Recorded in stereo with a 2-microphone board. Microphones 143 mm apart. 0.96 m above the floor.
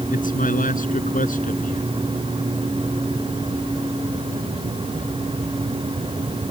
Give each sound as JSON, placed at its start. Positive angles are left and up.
{"t": 0.1, "sound": "a man speaking", "side_deg": 75}